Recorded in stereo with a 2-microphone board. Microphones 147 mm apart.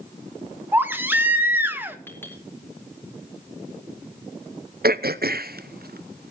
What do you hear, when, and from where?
0.7 s a baby crying: 15° right (ahead or behind), 1.3 m
2.1 s a clink: 15° left (ahead or behind), 4 m
4.8 s throat clearing: 80° right, 0.6 m